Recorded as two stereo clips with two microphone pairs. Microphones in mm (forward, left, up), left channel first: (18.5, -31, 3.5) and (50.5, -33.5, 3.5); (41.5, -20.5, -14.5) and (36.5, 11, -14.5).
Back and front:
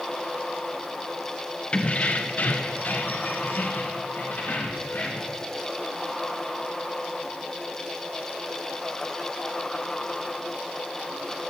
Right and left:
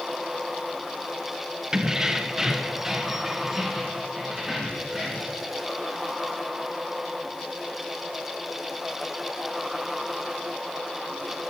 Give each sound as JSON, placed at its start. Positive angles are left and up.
{"t": 1.7, "sound": "keys jangling", "azimuth_deg": 150, "distance_m": 0.6}